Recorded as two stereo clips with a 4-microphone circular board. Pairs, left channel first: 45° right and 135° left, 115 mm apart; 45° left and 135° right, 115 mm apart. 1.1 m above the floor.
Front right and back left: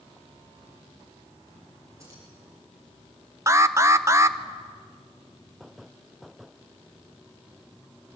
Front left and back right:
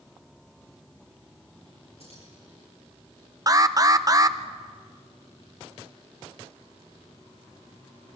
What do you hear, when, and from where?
2.0 s keys jangling: 160° right, 9.5 m
3.5 s an alarm: 175° right, 0.8 m